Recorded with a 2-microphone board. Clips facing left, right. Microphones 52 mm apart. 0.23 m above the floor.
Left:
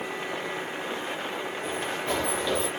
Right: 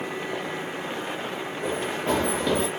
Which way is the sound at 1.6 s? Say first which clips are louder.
Right 5 dB; 55° right (ahead or behind).